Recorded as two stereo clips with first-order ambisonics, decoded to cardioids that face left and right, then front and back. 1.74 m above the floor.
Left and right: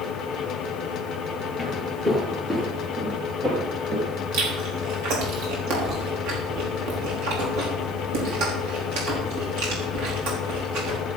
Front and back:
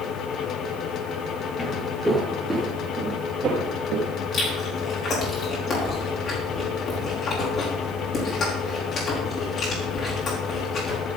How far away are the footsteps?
About 1.7 m.